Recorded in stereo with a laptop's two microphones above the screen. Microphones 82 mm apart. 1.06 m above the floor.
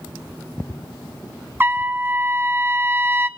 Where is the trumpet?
25° right (ahead or behind), 0.6 m.